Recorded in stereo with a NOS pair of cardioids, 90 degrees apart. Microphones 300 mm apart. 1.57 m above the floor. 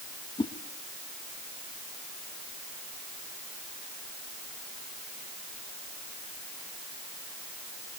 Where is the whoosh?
15° left, 2.5 m.